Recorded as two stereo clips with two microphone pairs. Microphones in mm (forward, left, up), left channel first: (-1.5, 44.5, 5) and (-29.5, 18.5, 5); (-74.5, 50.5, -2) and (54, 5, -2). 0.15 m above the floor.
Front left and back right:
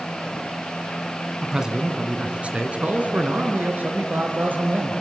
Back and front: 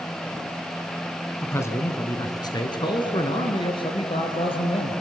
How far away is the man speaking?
About 1.4 m.